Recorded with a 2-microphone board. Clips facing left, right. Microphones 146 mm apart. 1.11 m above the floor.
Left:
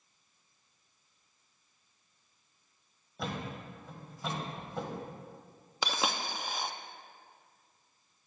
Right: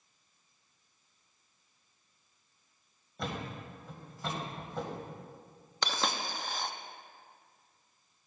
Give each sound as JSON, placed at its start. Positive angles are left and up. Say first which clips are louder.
{"t": 3.2, "sound": "a thud", "louder": "even", "side_deg": 5, "distance_m": 1.6}
{"t": 5.8, "sound": "a dropped coin", "louder": "left 1 dB", "side_deg": 5, "distance_m": 0.5}